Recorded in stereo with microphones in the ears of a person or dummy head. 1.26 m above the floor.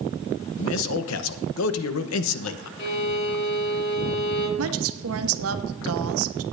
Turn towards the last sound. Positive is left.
turn(degrees=-75)  # may be behind; listen again after turning